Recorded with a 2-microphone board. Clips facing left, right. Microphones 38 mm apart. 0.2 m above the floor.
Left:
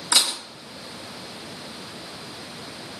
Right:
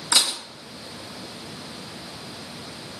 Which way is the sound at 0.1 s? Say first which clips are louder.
Even; 5° left (ahead or behind).